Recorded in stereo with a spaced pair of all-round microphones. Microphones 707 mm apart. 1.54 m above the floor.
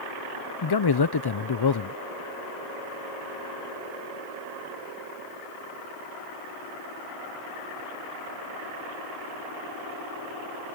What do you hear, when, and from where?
0.6 s a man speaking: 35° left (ahead or behind)